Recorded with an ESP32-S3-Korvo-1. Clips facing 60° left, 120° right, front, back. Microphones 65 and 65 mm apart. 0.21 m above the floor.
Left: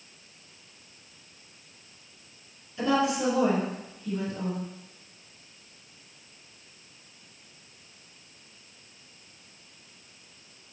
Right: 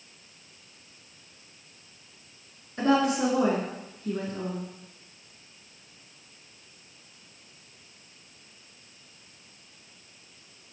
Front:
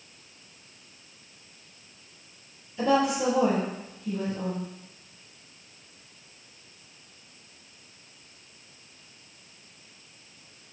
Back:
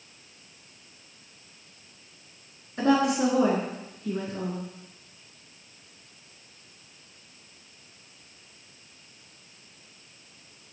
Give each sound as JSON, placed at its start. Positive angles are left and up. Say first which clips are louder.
{"t": 2.8, "sound": "a woman speaking", "louder": "right 2 dB, back 1 dB", "azimuth_deg": -165, "distance_m": 3.0}